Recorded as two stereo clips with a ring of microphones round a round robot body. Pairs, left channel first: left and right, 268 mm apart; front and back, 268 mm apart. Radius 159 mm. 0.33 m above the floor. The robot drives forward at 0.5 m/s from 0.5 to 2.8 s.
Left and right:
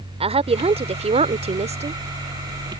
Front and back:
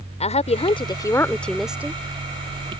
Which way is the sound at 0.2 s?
45° right.